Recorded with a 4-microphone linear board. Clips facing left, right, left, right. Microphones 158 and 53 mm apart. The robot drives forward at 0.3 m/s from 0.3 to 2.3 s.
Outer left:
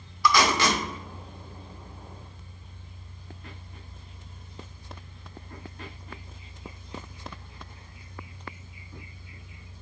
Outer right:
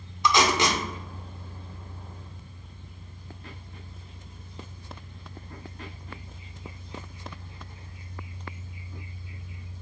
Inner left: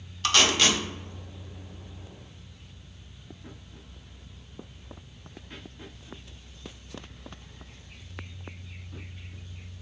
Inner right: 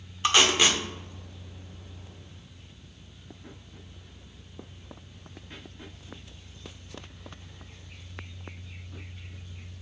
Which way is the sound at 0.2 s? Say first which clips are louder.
Even, inner right 1 dB; 20° right (ahead or behind).